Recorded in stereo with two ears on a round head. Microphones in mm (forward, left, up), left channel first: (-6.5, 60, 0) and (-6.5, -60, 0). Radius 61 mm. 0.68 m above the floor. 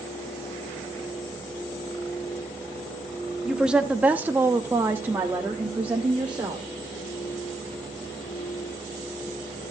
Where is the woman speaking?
5° right (ahead or behind), 1.3 m; by 6.7 s 10° right (ahead or behind), 2.5 m.